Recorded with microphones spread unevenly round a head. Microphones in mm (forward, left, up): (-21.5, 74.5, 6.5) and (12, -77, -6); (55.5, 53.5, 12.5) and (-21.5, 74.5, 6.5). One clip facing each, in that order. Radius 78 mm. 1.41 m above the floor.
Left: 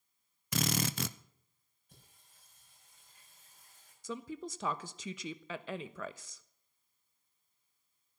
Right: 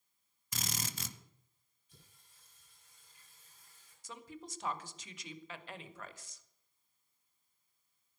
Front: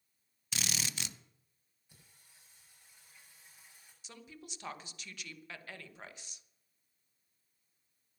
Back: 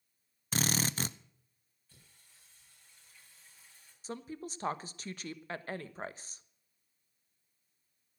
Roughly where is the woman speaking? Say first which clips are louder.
Left 8 dB, back 11 dB; left.